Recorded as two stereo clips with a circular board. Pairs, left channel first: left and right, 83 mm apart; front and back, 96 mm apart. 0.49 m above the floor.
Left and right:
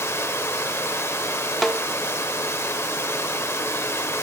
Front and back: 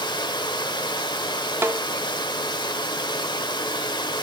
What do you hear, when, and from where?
0.0 s running water: 30° left, 1.1 m
1.6 s a snare drum: 175° left, 0.6 m